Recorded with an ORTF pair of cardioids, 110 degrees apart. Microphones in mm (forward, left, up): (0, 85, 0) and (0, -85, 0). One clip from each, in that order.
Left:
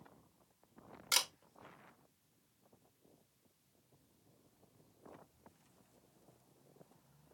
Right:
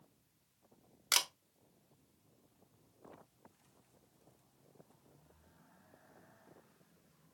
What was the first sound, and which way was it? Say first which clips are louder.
A camera shutter: right 1 dB; 20° right.